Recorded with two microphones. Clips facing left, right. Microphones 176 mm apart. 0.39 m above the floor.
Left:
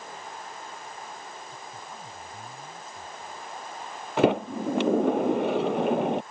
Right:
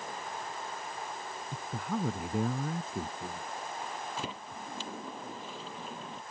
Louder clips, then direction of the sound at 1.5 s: Right 7 dB; 65° right (ahead or behind).